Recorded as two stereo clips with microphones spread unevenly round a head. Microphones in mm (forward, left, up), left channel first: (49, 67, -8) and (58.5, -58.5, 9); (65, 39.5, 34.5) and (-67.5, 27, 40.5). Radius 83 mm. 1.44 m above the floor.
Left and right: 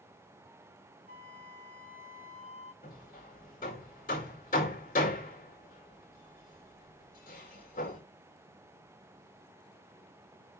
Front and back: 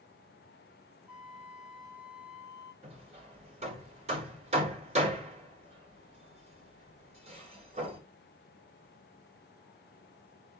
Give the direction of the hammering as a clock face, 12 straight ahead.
7 o'clock.